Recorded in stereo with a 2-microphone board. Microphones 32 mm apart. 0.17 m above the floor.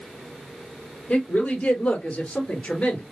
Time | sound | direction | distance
1.1 | a woman speaking | 30° left (ahead or behind) | 4 m